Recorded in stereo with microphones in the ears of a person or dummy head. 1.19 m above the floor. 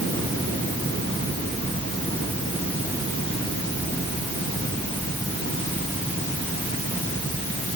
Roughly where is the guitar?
I don't hear a guitar.